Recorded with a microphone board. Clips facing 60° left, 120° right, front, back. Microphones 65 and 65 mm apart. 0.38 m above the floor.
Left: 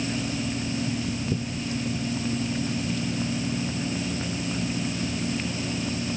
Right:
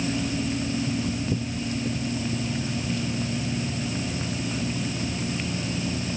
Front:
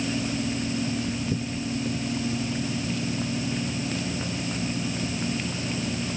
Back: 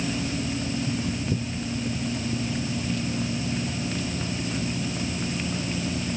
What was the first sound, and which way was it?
Only background noise.